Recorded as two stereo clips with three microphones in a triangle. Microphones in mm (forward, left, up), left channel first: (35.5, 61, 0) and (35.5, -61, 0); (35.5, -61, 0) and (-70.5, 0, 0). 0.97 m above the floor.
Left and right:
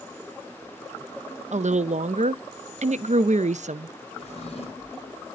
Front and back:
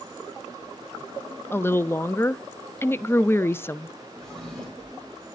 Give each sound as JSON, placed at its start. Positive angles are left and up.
{"t": 1.5, "sound": "a woman speaking", "azimuth_deg": -100, "distance_m": 0.5}
{"t": 4.2, "sound": "a drawer", "azimuth_deg": 55, "distance_m": 3.0}